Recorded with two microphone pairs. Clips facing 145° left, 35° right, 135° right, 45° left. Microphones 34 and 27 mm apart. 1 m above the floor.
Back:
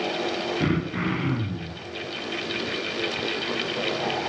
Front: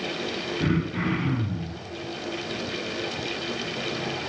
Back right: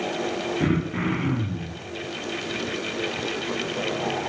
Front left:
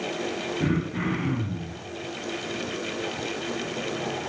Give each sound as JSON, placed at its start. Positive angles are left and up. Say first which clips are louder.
{"t": 0.6, "sound": "throat clearing", "louder": "front 2 dB, back right 2 dB", "azimuth_deg": -175, "distance_m": 0.8}